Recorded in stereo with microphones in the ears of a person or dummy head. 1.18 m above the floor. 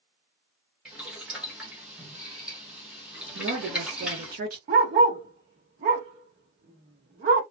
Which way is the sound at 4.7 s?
25° right (ahead or behind).